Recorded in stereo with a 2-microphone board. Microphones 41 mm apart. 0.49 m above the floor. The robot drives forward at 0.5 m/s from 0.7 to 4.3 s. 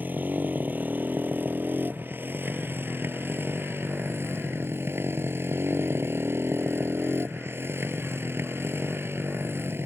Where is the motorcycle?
50° right (ahead or behind); by 9.9 s 75° right (ahead or behind).